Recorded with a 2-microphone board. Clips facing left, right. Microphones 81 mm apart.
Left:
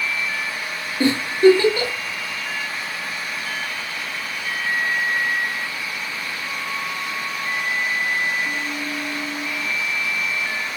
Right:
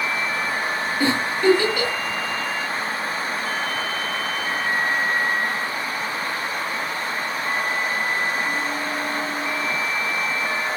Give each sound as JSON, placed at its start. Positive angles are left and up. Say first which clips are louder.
{"t": 1.0, "sound": "a giggle", "louder": "left 6 dB", "side_deg": 30, "distance_m": 1.4}